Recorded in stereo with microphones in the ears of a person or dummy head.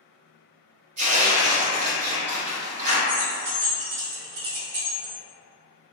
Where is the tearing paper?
40° right (ahead or behind), 0.8 m.